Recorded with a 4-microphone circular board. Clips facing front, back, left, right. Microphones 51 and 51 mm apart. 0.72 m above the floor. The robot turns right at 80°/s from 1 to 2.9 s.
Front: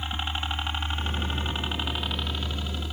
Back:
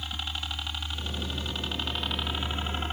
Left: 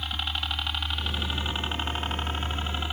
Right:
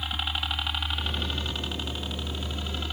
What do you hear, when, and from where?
0.0 s a helicopter: 10° right; by 2.9 s 155° left